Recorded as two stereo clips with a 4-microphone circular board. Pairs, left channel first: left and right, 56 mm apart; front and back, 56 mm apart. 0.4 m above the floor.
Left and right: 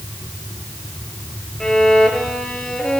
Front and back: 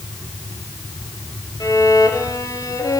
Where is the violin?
10° left, 3 m.